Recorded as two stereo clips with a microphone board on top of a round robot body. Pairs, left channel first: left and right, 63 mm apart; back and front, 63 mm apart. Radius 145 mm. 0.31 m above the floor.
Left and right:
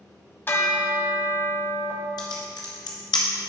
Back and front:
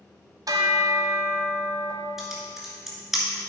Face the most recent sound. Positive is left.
turn(degrees=85)